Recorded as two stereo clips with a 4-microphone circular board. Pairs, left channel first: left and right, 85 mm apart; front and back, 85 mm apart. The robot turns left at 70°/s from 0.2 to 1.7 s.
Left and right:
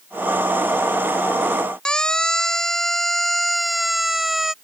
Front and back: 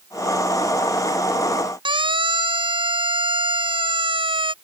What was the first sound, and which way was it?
A siren, 170° left.